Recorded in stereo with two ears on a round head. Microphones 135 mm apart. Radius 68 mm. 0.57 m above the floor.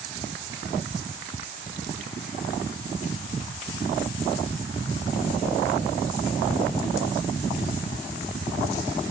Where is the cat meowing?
No cat meowing in this recording.